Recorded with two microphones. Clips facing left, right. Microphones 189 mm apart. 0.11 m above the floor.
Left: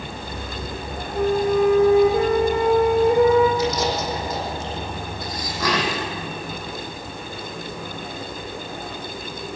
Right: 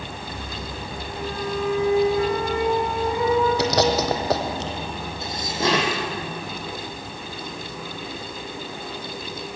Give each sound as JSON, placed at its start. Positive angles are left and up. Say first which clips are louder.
{"t": 1.1, "sound": "a flute", "louder": "left 10 dB", "side_deg": 55, "distance_m": 3.5}
{"t": 3.6, "sound": "chewing", "louder": "right 2 dB", "side_deg": -75, "distance_m": 2.0}
{"t": 5.2, "sound": "dishes clattering", "louder": "right 2 dB", "side_deg": -25, "distance_m": 3.5}